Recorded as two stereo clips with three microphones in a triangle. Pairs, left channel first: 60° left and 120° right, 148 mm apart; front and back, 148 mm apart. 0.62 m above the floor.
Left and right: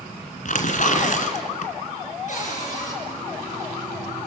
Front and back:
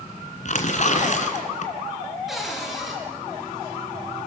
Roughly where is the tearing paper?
Ahead left.